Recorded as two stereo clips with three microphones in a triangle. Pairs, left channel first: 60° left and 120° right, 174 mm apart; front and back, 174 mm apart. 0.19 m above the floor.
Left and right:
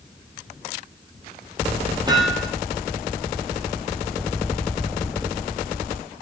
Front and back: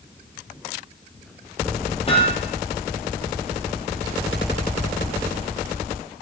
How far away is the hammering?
About 5 m.